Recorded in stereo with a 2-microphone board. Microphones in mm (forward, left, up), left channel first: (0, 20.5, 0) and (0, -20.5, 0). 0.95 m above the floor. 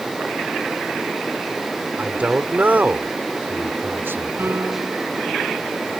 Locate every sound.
2.0 s a man speaking: 30° right (ahead or behind); by 4.7 s 70° right (ahead or behind)
4.4 s a piano: 65° right (ahead or behind)